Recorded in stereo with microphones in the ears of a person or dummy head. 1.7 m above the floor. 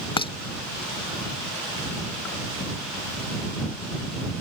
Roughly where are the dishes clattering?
Left.